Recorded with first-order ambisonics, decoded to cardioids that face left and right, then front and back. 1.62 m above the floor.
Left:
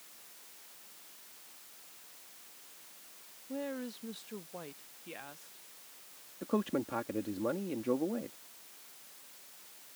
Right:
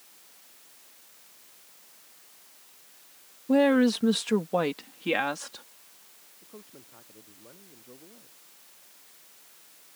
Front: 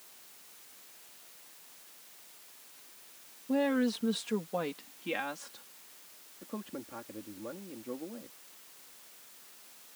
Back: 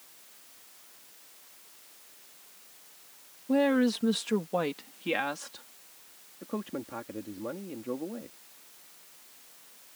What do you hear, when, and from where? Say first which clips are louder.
3.5 s a woman speaking: right 19 dB, back 4 dB; 105° right; by 5.6 s 110° right
6.4 s a man speaking: left 17 dB, back 6 dB; 110° left